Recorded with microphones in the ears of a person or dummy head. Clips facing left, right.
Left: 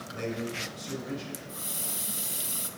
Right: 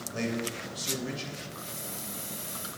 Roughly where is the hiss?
Left.